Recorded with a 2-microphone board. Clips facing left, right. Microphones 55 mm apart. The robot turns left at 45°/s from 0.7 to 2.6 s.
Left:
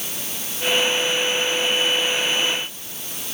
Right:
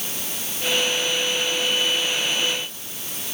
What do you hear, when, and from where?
Only background noise.